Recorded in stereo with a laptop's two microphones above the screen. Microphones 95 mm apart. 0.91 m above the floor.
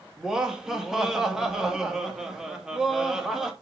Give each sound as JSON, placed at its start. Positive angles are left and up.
{"t": 0.2, "sound": "laughter", "side_deg": -5, "distance_m": 2.0}